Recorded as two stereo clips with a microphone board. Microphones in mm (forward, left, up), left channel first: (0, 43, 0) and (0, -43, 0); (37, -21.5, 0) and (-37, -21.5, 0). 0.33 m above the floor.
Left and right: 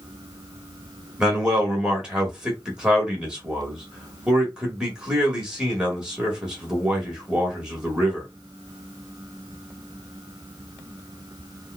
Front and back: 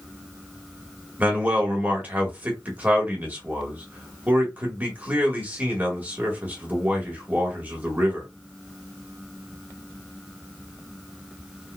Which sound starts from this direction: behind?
A man speaking, at 1.2 s.